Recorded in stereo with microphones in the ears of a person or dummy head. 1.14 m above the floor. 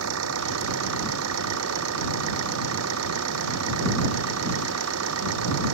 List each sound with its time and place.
0.0 s an engine running: 85° right